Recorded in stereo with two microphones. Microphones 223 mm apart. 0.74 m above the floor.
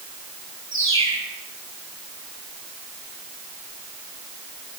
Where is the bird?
60° right (ahead or behind), 5.5 m.